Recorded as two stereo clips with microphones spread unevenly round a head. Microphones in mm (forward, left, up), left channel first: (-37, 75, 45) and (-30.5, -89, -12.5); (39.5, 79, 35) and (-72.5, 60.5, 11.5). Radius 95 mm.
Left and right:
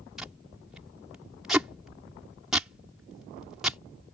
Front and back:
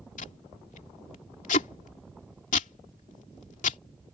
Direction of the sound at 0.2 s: 5° left.